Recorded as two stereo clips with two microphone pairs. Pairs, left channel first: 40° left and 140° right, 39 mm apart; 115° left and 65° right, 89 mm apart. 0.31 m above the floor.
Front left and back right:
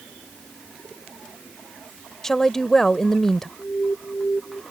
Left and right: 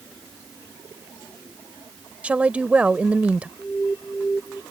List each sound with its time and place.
2.2 s a woman speaking: 20° right
3.6 s an alarm: 35° left